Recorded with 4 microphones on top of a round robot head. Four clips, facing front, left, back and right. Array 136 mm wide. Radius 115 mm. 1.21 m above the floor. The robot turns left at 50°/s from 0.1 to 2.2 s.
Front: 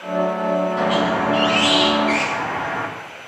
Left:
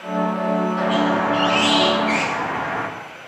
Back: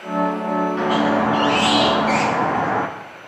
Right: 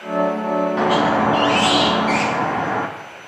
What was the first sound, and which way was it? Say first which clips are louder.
A squeak: right 4 dB, back 1 dB; 80° right.